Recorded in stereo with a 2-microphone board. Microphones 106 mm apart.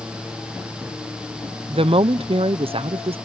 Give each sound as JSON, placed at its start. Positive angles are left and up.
{"t": 1.7, "sound": "a woman speaking", "side_deg": -65}